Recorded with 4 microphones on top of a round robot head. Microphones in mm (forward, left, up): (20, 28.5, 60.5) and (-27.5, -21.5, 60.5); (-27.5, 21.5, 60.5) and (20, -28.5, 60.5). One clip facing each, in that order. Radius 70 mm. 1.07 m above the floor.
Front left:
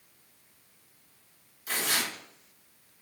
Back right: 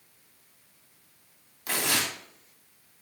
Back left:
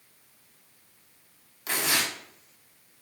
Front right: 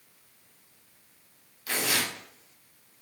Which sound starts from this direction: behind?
Tearing paper, at 1.7 s.